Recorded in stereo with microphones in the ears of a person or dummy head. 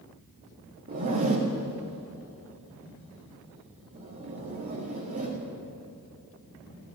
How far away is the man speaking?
I don't hear a man speaking.